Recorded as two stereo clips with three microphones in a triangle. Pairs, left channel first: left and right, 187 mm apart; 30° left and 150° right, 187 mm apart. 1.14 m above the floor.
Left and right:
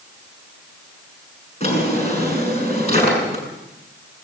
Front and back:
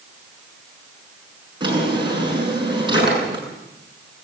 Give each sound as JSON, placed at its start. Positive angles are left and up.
{"t": 1.6, "sound": "a drawer", "azimuth_deg": 145, "distance_m": 7.0}